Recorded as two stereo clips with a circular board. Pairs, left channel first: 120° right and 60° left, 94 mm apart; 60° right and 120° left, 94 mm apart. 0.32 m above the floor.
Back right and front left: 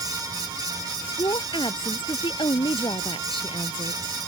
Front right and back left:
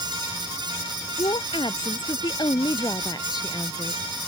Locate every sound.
1.2 s a woman speaking: 85° right; by 4.0 s 110° right